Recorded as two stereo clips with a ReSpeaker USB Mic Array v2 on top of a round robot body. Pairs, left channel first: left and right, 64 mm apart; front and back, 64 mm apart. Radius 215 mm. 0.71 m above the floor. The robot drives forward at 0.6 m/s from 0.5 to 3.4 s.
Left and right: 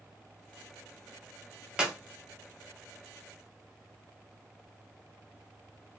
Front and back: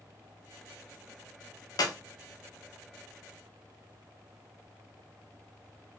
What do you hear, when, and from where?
1.8 s a clap: 10° right, 1.2 m; by 1.9 s 15° right, 1.1 m